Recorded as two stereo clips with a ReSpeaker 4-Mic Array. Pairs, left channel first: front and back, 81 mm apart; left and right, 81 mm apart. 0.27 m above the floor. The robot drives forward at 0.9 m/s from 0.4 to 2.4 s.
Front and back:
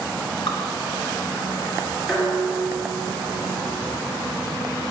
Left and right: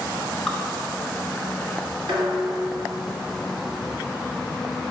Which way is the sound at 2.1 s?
90° right.